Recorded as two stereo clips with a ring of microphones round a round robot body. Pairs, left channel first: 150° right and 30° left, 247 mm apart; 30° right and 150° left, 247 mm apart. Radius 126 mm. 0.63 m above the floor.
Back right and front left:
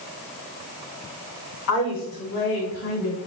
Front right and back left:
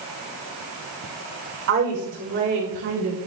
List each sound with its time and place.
1.7 s a woman speaking: 170° right, 4.5 m; by 3.2 s 175° right, 4 m